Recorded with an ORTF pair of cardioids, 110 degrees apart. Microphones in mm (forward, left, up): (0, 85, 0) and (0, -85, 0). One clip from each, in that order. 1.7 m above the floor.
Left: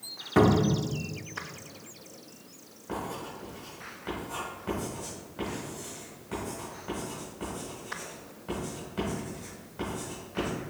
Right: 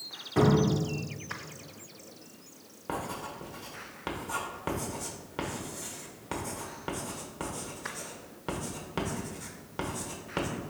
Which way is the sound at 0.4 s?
30° left.